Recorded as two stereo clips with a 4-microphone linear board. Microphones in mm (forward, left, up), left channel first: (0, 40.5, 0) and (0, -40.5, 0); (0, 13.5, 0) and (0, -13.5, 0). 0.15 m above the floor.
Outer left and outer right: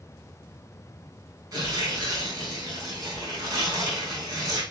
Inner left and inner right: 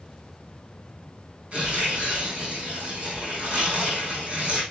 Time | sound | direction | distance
1.5 | tearing paper | 55° right (ahead or behind) | 5 m